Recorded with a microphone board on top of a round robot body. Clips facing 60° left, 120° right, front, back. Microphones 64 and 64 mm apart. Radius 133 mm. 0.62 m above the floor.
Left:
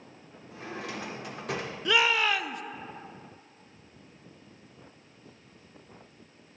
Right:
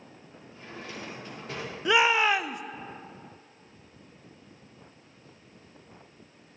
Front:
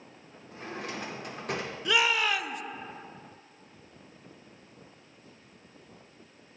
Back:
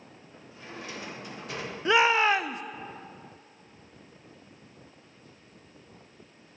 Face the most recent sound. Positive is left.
turn(degrees=-170)